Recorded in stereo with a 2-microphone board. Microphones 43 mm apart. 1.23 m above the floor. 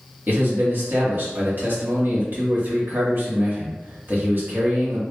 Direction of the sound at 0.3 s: 55° right (ahead or behind).